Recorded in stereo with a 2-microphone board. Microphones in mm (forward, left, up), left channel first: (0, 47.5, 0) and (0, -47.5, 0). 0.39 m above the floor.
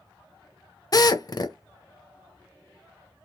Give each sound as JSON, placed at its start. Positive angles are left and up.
{"t": 0.9, "sound": "a drill", "side_deg": 45, "distance_m": 0.6}